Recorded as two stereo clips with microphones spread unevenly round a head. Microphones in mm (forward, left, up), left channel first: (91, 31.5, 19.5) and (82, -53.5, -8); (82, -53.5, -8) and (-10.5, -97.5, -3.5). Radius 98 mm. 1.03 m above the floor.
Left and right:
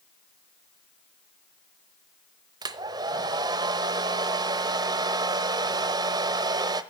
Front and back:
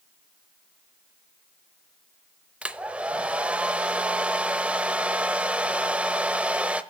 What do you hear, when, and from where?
2.6 s a hair dryer: 100° right, 0.8 m